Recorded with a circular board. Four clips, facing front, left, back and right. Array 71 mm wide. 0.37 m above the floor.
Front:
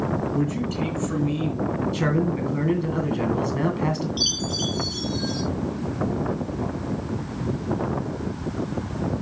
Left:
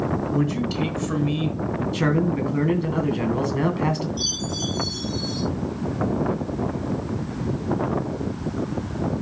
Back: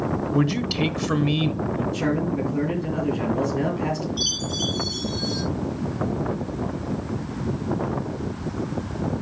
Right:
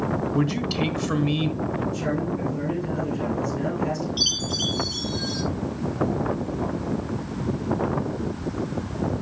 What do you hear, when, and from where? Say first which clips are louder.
0.3 s a man speaking: left 1 dB, back 2 dB; 165° right, 1.4 m
1.9 s a man speaking: left 4 dB, even; 65° left, 2.5 m
4.2 s a chime: even, even; 65° right, 6 m